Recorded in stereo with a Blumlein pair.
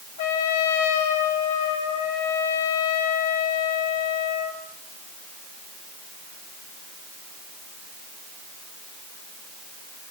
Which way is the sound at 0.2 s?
55° left.